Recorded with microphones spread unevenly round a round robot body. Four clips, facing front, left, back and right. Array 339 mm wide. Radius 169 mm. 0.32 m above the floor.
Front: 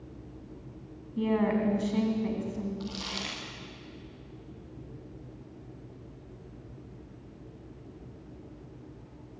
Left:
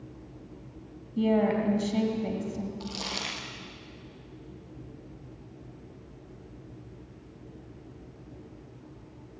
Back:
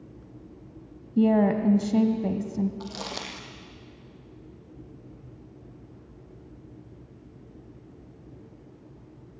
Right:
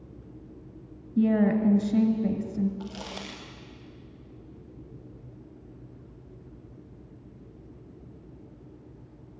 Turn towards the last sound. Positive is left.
turn(degrees=170)